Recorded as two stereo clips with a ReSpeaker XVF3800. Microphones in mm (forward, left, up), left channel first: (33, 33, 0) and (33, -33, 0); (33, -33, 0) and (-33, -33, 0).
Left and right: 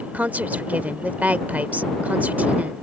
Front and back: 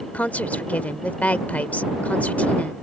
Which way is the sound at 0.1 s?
45° right.